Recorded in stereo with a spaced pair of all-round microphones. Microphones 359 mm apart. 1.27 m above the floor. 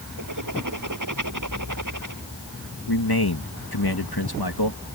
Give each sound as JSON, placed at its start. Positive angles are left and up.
{"t": 0.2, "sound": "writing", "side_deg": -55}
{"t": 2.9, "sound": "a man speaking", "side_deg": 80}